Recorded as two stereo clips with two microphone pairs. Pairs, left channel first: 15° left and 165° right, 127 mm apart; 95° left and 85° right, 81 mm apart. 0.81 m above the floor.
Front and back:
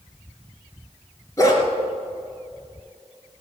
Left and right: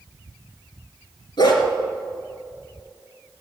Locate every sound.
1.4 s a dog barking: 80° left, 3 m